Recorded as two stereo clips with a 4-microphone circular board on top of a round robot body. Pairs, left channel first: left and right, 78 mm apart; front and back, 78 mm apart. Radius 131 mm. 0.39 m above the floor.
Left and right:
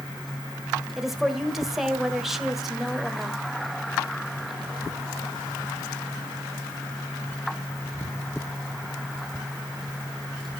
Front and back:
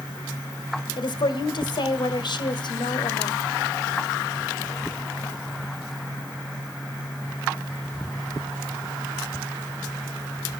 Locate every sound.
1.0 s a woman speaking: 5° right, 1.9 m